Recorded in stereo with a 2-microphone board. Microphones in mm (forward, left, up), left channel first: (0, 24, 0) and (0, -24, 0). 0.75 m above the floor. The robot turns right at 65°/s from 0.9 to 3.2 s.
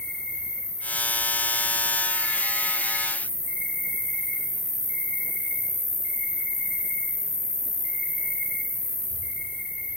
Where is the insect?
170° left, 3.5 m; by 10.0 s 40° right, 3.5 m.